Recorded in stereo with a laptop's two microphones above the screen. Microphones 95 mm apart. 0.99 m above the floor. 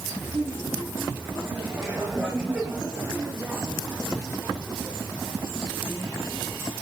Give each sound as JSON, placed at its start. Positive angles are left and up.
{"t": 0.2, "sound": "laughter", "side_deg": -30, "distance_m": 6.5}